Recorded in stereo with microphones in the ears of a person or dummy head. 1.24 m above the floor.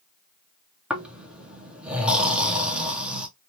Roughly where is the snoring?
Centre.